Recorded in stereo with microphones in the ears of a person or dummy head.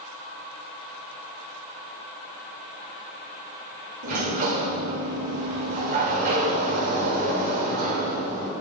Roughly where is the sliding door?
Right.